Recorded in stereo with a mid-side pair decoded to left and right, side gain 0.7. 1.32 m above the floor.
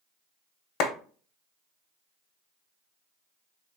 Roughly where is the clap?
Ahead left.